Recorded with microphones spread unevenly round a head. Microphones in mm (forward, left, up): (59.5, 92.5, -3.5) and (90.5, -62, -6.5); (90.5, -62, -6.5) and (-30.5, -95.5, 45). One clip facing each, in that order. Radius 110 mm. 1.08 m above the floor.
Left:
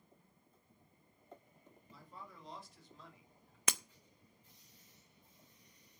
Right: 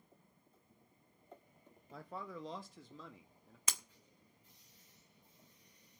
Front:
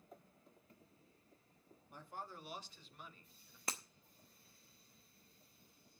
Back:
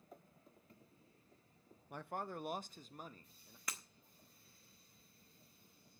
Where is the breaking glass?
100° left, 0.5 m.